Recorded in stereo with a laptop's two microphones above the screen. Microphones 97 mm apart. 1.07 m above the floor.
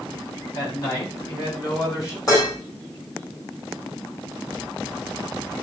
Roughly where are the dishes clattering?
Left.